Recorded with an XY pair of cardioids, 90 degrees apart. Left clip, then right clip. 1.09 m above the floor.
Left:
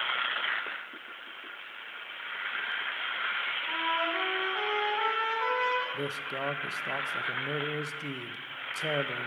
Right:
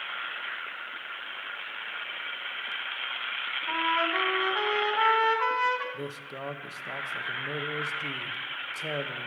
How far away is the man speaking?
About 0.7 m.